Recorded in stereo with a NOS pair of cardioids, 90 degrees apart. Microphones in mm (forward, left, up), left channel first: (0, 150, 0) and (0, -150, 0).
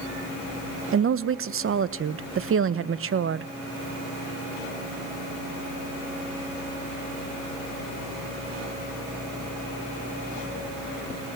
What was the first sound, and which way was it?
A woman speaking, 45° right.